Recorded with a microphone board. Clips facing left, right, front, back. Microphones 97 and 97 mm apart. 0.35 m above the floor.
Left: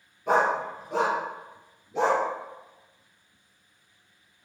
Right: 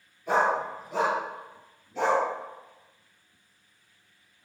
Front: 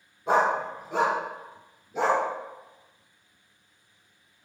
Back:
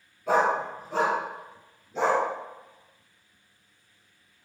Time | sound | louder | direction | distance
0.3 | a dog barking | left 1 dB, even | 65° left | 1.5 m